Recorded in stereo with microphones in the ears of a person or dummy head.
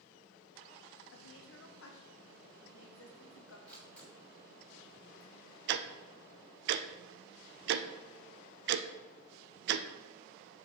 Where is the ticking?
65° right (ahead or behind), 0.6 m.